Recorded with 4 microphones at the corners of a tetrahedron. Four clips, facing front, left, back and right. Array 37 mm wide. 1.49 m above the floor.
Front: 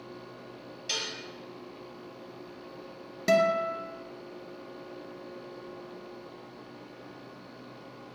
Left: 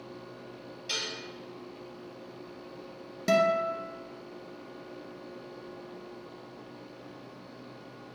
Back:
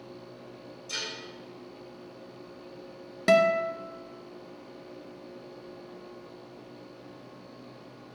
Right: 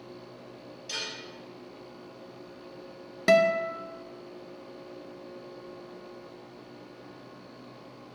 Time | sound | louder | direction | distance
0.9 | dishes clattering | left 2 dB, front 2 dB | 20° left | 4.5 m
3.3 | a guitar | right 3 dB, back 2 dB | 130° right | 1.0 m